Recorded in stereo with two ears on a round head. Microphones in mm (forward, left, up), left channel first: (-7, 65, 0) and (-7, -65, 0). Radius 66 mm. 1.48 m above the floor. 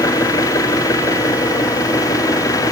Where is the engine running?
25° left (ahead or behind).